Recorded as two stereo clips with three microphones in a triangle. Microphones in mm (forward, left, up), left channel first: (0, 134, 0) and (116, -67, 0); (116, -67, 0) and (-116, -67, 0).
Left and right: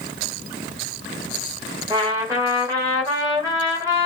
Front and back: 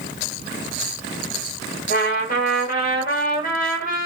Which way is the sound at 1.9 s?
10° left.